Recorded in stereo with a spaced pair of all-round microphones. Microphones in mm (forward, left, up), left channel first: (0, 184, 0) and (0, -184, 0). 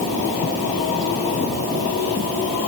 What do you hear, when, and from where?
Only background noise.